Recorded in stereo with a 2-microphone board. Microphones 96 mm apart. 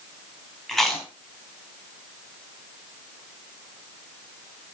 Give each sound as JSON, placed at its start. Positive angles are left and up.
{"t": 0.7, "sound": "chewing", "side_deg": 5, "distance_m": 4.0}